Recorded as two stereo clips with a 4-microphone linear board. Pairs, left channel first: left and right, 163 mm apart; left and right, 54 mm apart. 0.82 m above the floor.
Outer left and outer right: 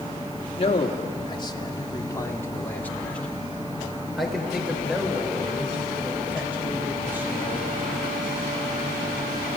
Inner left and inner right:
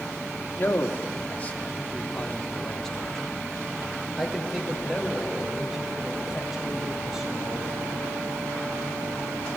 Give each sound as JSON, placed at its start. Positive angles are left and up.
{"t": 0.6, "sound": "a man speaking", "side_deg": 40, "distance_m": 2.5}